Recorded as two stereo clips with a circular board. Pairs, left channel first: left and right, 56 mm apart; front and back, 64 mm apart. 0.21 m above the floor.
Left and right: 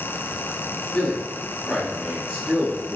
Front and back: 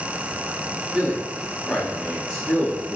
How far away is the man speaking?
About 1.0 m.